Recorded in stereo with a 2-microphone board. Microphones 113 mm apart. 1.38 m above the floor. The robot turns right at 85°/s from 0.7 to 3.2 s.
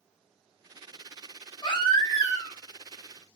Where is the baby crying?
75° left, 0.7 m; by 2.6 s 155° left, 0.7 m.